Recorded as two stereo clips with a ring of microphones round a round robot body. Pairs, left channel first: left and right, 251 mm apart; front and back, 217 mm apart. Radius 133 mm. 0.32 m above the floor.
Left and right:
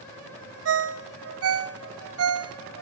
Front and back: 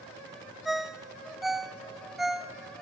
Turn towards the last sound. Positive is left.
turn(degrees=-90)